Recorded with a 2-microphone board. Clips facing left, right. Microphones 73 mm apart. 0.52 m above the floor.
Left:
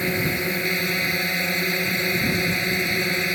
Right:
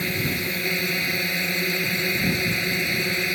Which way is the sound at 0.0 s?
30° left (ahead or behind).